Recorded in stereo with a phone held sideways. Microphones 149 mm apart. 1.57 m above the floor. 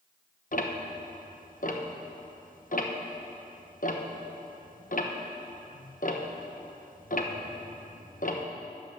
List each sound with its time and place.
0.5 s ticking: 60° left (ahead or behind), 1.0 m